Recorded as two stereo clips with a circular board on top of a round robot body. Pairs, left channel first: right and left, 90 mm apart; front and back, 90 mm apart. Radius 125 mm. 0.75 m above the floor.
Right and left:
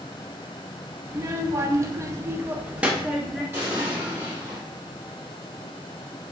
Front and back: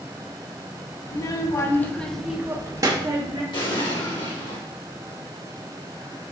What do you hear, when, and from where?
1.1 s a child speaking: 35° left, 0.8 m; by 3.4 s 175° left, 0.8 m
3.5 s an explosion: 30° left, 1.5 m